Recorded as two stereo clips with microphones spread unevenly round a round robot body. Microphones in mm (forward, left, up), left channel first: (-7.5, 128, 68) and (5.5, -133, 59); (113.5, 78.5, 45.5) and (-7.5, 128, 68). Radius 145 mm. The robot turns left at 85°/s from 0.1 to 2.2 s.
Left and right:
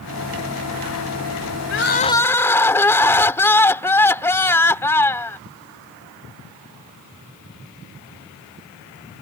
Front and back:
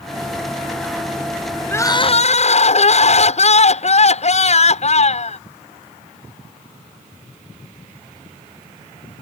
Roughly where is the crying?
Ahead left.